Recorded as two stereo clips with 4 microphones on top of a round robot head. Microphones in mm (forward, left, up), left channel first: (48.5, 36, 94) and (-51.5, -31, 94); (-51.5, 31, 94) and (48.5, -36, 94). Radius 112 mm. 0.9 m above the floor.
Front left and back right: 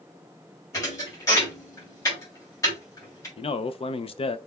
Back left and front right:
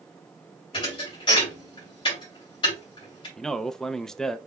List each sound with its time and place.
0.7 s a thud: 100° left, 3 m
3.4 s a man speaking: 60° left, 0.5 m